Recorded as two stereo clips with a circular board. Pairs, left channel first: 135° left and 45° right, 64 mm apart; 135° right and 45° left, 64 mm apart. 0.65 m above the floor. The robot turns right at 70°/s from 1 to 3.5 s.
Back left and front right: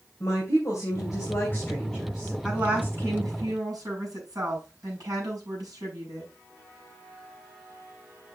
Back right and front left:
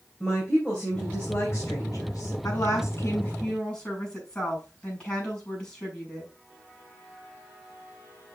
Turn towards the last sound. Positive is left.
turn(degrees=-55)